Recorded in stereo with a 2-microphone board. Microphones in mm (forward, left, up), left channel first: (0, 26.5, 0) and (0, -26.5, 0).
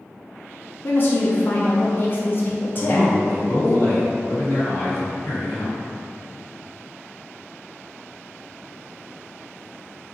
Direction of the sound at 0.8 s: 40° left (ahead or behind).